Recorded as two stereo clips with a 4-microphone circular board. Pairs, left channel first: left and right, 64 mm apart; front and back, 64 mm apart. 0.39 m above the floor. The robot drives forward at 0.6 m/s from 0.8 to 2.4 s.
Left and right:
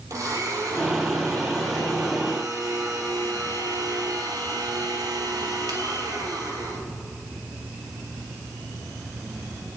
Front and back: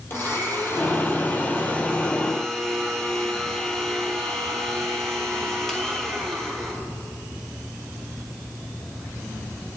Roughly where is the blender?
Ahead right.